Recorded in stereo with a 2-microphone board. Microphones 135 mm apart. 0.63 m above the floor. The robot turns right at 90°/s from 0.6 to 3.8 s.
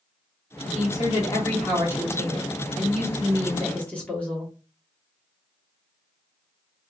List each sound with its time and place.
0.7 s a woman speaking: 95° left, 1.2 m; by 4.5 s 10° left, 1.2 m